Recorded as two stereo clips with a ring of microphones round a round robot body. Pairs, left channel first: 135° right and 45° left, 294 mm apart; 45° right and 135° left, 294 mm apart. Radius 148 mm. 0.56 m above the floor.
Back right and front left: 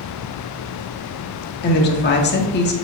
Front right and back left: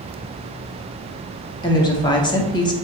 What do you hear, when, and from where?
1.6 s a woman speaking: 110° right, 1.1 m